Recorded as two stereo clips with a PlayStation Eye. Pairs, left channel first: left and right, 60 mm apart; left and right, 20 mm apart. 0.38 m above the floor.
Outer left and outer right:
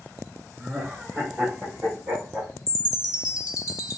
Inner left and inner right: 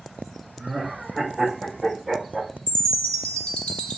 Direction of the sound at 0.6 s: 10° right (ahead or behind).